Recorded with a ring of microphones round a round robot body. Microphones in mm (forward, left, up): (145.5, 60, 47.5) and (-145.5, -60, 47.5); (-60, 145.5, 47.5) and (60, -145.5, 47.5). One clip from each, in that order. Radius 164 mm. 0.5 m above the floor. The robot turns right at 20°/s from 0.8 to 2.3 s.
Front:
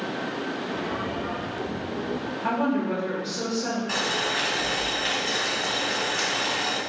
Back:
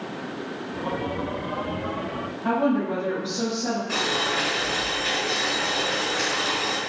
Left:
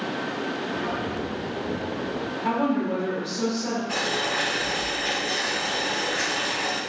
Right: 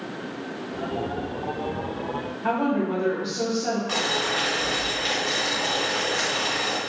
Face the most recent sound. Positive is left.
turn(degrees=-10)